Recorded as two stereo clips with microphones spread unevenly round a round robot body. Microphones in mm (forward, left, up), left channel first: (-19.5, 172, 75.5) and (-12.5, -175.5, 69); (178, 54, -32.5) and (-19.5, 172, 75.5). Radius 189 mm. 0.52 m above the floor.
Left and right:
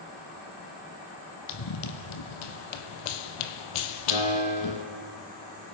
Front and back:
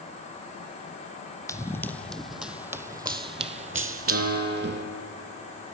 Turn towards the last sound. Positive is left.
turn(degrees=110)